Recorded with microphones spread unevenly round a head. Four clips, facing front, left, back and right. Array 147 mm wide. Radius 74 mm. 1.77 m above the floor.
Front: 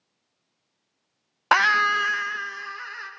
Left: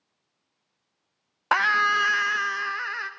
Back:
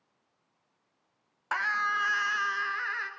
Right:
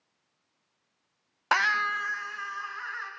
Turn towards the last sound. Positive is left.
turn(degrees=105)